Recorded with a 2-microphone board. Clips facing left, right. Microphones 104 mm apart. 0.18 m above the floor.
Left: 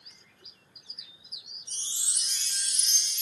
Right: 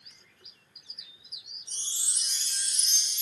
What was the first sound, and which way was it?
A chime, 80° left.